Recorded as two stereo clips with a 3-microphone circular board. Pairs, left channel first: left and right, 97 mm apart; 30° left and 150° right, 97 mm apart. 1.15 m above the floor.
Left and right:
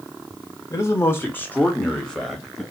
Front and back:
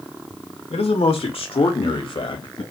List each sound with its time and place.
0.7 s a man speaking: 30° left, 1.7 m; by 2.6 s straight ahead, 1.7 m